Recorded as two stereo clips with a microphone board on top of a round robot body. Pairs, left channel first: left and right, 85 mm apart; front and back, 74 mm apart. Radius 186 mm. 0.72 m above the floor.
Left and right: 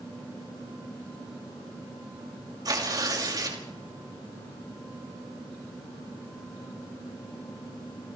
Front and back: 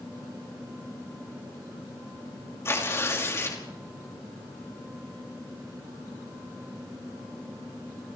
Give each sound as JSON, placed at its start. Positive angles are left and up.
{"t": 2.6, "sound": "tearing paper", "azimuth_deg": -50, "distance_m": 5.5}